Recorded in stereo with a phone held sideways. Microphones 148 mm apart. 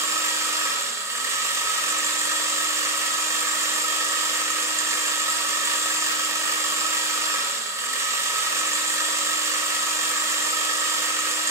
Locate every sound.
0.0 s a machine running: 20° right (ahead or behind), 1.0 m